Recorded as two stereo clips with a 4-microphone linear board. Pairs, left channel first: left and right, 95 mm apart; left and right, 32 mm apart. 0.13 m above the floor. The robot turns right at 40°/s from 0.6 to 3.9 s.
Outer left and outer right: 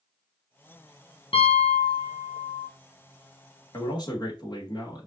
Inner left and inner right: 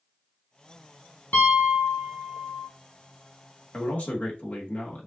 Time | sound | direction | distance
1.3 | a piano | 90° left | 1.5 m
3.7 | a man speaking | 40° left (ahead or behind) | 2 m